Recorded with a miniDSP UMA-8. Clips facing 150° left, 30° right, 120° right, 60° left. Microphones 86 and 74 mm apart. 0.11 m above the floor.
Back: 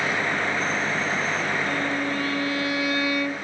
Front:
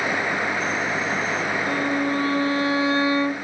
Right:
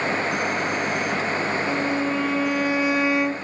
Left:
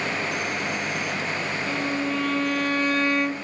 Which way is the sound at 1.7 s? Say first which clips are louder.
Front 3 dB, right 3 dB; 45° right.